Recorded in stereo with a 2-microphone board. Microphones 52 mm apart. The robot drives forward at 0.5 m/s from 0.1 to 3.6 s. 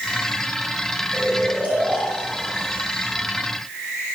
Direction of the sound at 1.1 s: 35° right (ahead or behind).